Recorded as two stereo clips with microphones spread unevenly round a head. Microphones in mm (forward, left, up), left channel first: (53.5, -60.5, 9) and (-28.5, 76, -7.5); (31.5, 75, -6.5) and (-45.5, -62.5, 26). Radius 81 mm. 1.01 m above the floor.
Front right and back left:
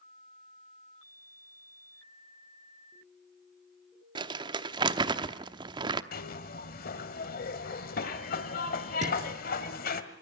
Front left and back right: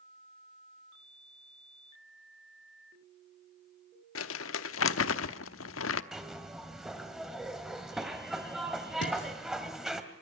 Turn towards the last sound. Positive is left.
turn(degrees=75)